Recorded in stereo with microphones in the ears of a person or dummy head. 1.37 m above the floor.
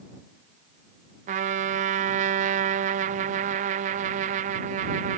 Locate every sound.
1.3 s a trumpet: 40° right (ahead or behind)